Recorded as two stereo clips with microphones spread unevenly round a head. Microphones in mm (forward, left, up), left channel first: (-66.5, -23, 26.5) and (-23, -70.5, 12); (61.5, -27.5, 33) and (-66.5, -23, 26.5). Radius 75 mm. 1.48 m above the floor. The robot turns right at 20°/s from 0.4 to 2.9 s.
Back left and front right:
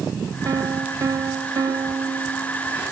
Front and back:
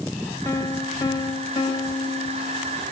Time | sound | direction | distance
0.5 | a piano | 55° right | 1.1 m